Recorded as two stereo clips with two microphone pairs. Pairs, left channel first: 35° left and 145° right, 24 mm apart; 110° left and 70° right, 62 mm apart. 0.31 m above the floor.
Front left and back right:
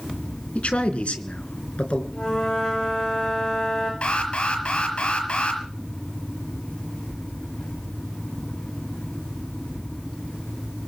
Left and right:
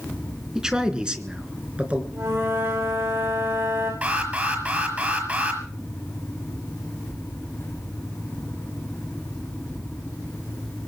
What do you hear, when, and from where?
0.6 s a man speaking: 5° left, 3.5 m; by 2.0 s 5° right, 4 m
2.1 s a flute: 25° right, 9.5 m
4.0 s an alarm: 5° right, 6 m